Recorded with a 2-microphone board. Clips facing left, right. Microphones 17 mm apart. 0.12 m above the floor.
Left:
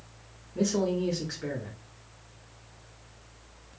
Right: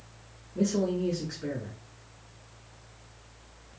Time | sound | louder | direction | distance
0.6 | a man speaking | even | 25° left (ahead or behind) | 1.1 m